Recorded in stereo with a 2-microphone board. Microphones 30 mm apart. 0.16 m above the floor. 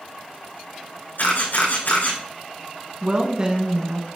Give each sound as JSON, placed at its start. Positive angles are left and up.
{"t": 1.2, "sound": "a camera shutter", "side_deg": 80, "distance_m": 4.5}
{"t": 3.0, "sound": "a woman speaking", "side_deg": -25, "distance_m": 1.4}